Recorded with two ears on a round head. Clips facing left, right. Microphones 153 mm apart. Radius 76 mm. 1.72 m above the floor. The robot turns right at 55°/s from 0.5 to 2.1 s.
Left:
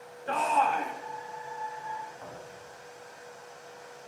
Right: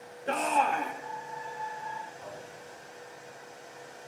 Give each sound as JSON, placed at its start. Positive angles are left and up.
{"t": 0.3, "sound": "a shout", "side_deg": -25, "distance_m": 3.0}
{"t": 2.2, "sound": "a thud", "side_deg": 55, "distance_m": 8.0}